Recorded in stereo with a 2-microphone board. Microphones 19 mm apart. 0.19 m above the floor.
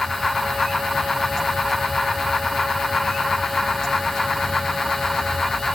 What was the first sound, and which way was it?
Only background noise.